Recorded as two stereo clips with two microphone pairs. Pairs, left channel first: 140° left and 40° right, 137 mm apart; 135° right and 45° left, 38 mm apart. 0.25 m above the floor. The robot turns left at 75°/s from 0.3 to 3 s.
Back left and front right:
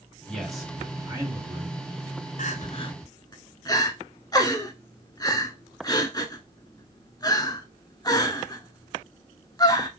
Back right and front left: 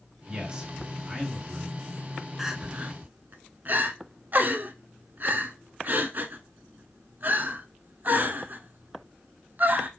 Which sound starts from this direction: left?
A man speaking, at 0.3 s.